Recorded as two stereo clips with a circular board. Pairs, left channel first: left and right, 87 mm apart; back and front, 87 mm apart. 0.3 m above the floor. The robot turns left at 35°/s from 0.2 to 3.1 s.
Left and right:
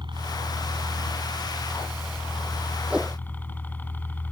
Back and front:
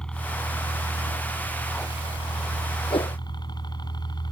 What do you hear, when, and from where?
0.0 s a helicopter: 100° right; by 4.3 s 160° left
2.9 s a whoosh: 165° right; by 3.2 s 175° right